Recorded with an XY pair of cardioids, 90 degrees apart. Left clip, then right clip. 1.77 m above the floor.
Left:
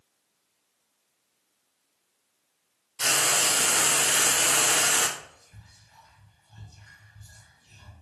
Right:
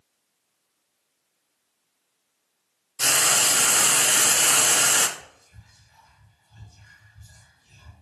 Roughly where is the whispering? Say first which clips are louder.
Even; ahead.